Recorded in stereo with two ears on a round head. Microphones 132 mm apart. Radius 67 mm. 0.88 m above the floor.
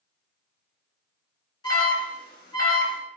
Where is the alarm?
30° left (ahead or behind), 1.5 m.